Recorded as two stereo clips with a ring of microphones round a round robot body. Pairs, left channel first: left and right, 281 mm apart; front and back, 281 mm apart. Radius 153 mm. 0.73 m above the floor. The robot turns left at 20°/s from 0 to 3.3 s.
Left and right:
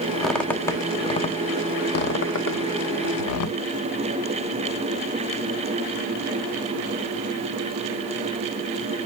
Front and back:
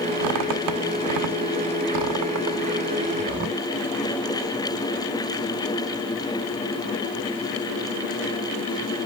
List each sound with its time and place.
0.2 s a squeak: straight behind, 0.7 m; by 3.6 s 120° left, 0.7 m